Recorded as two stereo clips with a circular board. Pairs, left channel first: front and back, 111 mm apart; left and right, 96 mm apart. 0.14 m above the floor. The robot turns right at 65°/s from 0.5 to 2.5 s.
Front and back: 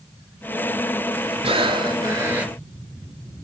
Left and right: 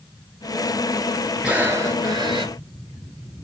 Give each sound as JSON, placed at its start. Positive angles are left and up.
{"t": 1.4, "sound": "breathing", "azimuth_deg": -170, "distance_m": 0.8}